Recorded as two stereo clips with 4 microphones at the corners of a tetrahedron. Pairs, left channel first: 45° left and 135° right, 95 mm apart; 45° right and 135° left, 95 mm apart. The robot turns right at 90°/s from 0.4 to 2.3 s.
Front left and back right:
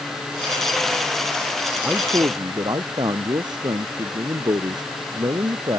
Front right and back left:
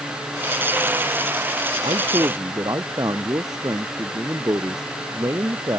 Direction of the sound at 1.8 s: 140° left.